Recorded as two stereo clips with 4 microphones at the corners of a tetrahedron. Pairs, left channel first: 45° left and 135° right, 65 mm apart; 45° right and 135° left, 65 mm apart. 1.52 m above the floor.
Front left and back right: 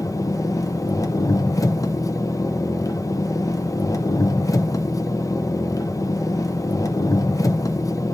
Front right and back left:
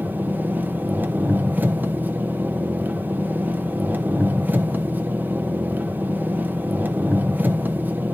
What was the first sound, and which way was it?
An engine running, 75° left.